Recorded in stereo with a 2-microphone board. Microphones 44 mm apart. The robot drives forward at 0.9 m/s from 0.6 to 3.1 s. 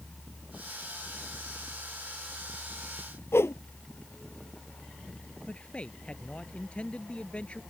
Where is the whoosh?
75° left (ahead or behind).